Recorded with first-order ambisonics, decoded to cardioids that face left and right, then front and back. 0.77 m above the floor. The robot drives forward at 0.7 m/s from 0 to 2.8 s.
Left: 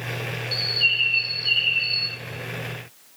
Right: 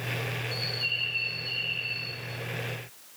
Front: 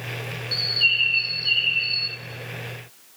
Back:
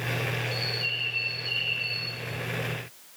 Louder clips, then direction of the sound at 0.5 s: Left 11 dB, front 14 dB; 40° left.